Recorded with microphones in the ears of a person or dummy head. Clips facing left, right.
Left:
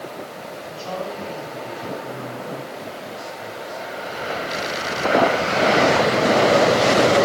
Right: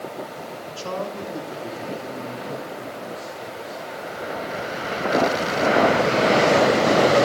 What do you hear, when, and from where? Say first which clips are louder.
0.7 s a man speaking: even; 80° right, 3.5 m; by 3.8 s 35° right (ahead or behind), 5 m